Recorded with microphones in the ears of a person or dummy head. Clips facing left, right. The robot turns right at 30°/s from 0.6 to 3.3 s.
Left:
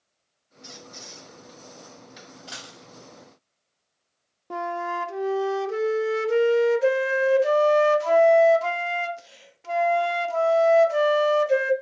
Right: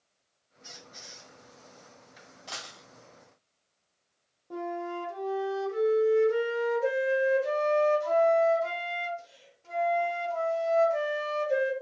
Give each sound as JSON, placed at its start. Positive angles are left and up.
{"t": 0.6, "sound": "a squeak", "side_deg": 65, "distance_m": 1.5}
{"t": 2.5, "sound": "a dropped coin", "side_deg": 10, "distance_m": 1.9}
{"t": 4.5, "sound": "a flute", "side_deg": 85, "distance_m": 0.6}